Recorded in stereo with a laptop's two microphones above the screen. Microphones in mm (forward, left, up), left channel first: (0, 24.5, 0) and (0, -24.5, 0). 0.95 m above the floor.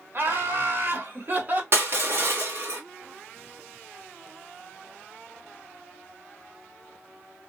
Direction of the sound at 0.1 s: 50° right (ahead or behind).